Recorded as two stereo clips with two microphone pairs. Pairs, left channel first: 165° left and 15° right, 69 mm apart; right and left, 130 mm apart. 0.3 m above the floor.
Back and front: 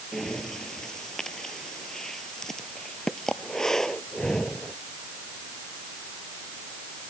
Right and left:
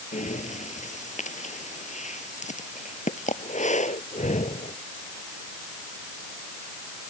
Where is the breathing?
115° right.